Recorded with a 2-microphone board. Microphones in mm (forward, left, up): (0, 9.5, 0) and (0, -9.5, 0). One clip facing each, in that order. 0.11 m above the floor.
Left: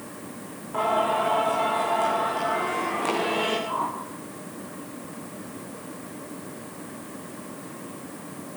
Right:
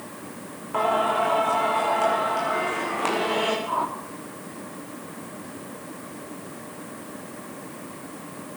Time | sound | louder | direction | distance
0.7 | singing | right 1 dB | 25° right (ahead or behind) | 8.5 m
3.7 | a whoosh | right 2 dB | 30° right (ahead or behind) | 4.5 m